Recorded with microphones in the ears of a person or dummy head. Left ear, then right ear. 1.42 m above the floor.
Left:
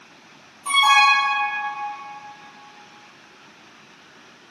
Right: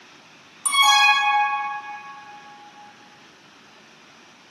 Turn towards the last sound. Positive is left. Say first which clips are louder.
# left 1 dB
turn(degrees=-75)  # may be behind; listen again after turning